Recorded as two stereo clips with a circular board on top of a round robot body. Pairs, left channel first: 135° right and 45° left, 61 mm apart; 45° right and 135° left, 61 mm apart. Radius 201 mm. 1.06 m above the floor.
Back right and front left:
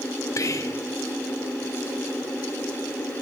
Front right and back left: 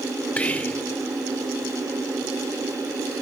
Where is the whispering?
110° right, 1.2 m.